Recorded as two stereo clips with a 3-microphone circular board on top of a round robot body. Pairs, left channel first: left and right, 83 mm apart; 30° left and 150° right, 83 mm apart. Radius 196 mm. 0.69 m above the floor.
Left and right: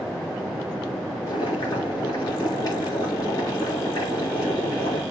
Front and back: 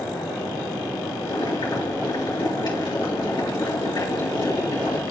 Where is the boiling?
55° left, 4.5 m.